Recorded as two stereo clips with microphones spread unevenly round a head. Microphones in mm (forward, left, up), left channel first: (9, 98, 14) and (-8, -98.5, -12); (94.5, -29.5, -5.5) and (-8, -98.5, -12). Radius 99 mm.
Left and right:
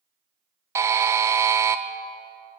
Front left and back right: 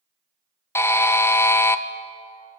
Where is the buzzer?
35° right, 0.6 m.